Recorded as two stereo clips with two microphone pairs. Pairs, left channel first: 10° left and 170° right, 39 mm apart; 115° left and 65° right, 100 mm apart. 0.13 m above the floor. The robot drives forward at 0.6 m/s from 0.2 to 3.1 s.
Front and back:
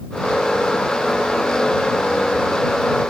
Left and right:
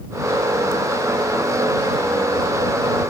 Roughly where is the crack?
No crack in this recording.